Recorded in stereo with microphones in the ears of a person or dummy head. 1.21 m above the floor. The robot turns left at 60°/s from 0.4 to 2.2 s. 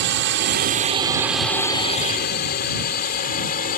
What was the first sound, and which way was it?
A drone, 50° right (ahead or behind).